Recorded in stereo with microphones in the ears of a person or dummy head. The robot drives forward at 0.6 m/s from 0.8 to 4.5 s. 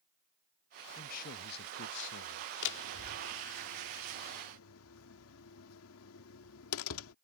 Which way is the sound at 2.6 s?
60° left (ahead or behind).